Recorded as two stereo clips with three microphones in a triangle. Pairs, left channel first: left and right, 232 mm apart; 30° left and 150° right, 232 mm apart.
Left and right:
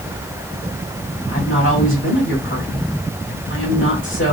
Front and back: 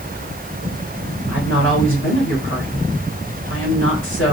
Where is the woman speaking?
60° left, 2.5 m.